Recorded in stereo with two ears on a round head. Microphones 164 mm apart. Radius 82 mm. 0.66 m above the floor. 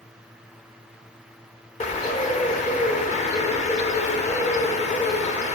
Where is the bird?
40° left (ahead or behind), 1.4 m.